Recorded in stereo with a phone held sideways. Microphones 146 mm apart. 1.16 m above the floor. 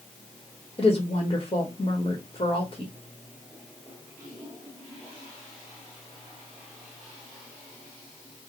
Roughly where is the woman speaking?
Left.